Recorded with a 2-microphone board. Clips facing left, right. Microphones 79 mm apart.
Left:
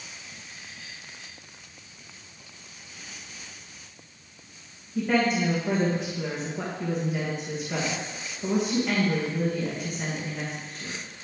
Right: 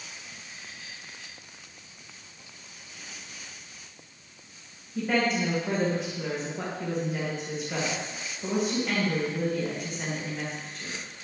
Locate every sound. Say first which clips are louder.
5.0 s a woman speaking: left 2 dB; centre (ahead or behind), 1.6 m